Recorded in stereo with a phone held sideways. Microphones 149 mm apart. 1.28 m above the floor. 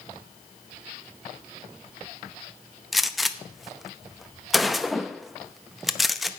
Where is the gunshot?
Centre (ahead or behind), 0.6 m.